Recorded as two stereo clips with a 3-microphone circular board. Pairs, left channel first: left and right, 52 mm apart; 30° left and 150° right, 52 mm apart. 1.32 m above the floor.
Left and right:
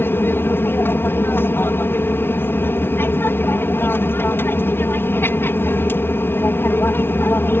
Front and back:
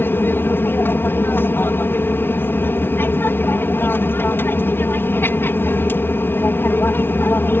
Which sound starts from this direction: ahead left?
An aircraft, at 0.0 s.